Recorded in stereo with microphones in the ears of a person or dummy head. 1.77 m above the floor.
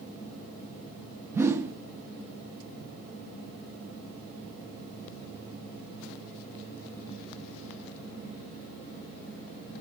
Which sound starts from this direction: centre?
A whoosh, at 1.3 s.